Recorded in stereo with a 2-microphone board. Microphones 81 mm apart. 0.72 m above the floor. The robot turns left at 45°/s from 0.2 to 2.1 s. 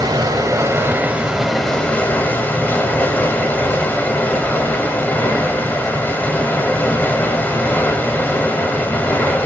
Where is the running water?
120° right, 1.0 m; by 9.5 s 155° left, 1.0 m.